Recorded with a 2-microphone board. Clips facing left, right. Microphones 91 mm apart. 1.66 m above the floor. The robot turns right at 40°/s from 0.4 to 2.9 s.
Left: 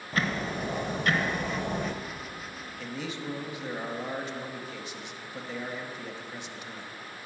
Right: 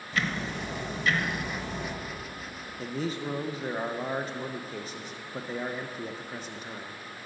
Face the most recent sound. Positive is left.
turn(degrees=-40)  # may be behind; listen again after turning